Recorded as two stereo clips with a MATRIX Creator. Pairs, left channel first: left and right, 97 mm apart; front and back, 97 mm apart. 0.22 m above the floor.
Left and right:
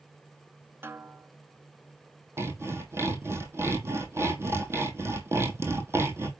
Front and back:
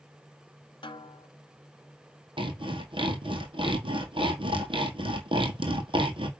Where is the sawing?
155° right, 1.7 m.